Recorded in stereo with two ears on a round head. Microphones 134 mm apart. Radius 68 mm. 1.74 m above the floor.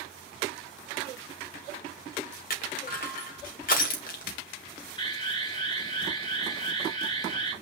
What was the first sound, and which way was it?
Crushing, 60° left (ahead or behind).